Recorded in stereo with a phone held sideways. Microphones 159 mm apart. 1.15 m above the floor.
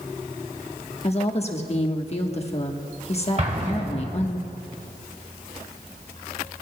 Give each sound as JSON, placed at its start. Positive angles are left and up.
{"t": 1.0, "sound": "a woman speaking", "side_deg": 40, "distance_m": 1.2}
{"t": 3.4, "sound": "an explosion", "side_deg": -45, "distance_m": 1.8}